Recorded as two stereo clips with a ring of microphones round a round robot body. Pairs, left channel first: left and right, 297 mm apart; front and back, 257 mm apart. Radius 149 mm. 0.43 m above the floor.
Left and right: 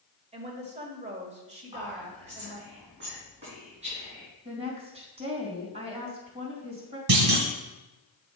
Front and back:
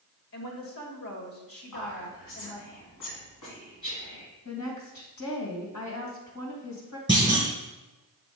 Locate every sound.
0.3 s a woman speaking: 25° right, 1.8 m
1.7 s whispering: 20° right, 4 m
4.5 s a woman speaking: 20° right, 2.5 m
7.1 s a clunk: 75° right, 2.5 m